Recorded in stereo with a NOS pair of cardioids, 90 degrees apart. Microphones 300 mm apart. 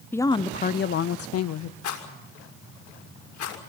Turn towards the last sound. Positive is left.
turn(degrees=70)